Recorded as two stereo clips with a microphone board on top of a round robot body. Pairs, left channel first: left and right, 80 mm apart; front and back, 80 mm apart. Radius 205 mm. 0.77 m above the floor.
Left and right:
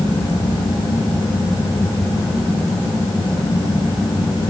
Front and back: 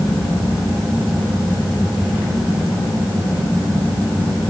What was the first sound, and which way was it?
Only background noise.